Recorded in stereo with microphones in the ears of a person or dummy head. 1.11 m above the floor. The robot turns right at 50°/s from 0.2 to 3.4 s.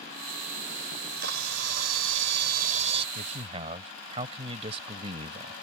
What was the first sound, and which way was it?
A camera shutter, 130° right.